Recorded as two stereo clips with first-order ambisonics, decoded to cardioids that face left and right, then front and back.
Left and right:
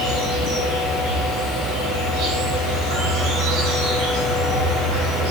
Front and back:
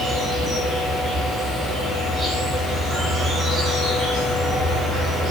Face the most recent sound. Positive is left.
turn(degrees=-110)